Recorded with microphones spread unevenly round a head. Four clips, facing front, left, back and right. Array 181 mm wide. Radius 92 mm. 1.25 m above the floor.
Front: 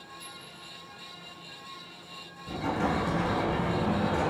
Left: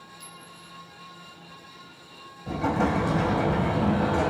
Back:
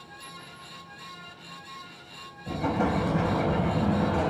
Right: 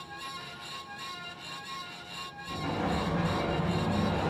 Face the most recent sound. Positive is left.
turn(degrees=130)